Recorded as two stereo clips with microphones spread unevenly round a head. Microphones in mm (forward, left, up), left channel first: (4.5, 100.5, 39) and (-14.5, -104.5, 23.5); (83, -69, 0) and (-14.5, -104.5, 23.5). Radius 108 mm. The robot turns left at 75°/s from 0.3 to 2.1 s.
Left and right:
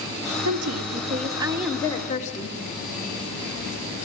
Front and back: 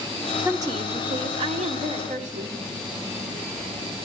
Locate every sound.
0.5 s a woman speaking: 95° right, 2 m; by 2.6 s 145° left, 2 m